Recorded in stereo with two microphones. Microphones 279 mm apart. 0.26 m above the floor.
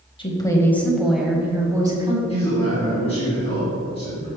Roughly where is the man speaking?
Left.